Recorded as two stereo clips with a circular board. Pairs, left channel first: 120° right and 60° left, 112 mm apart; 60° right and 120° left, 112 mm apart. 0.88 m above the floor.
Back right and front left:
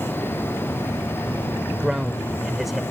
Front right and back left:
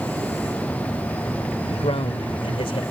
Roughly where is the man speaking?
Ahead right.